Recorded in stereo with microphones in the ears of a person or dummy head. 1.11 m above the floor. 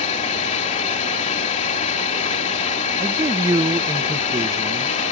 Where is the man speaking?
20° right (ahead or behind).